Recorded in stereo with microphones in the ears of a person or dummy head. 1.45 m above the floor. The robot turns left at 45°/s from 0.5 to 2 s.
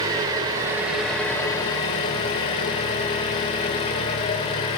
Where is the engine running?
155° right, 1.6 m; by 4.8 s 135° left, 1.6 m.